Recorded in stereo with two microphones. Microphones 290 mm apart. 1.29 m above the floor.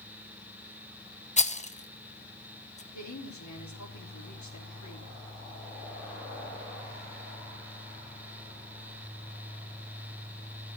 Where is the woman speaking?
75° left (ahead or behind), 3.5 m.